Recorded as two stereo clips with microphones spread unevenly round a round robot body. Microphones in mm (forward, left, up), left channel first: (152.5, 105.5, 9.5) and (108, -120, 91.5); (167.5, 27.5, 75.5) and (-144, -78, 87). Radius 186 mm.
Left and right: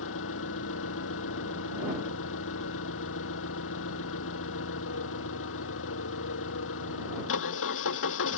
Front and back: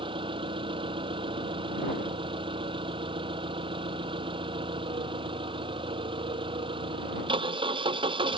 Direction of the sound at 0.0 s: 125° left.